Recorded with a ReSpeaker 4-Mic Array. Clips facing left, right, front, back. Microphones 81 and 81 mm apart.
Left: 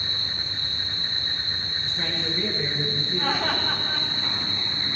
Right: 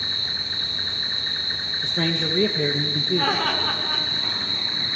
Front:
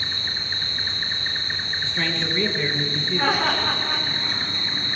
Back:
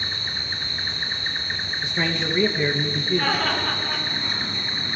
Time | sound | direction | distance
0.0 | an insect | 95° right | 3 m
1.8 | a man speaking | 105° right | 1.9 m
3.1 | laughter | 70° right | 7 m